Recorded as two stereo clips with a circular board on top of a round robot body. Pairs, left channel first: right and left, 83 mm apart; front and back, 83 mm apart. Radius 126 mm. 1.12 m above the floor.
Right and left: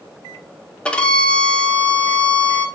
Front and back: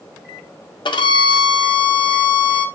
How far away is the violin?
About 1.9 m.